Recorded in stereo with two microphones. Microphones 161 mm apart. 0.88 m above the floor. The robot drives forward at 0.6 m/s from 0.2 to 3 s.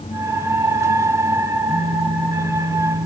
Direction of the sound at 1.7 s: 80° right.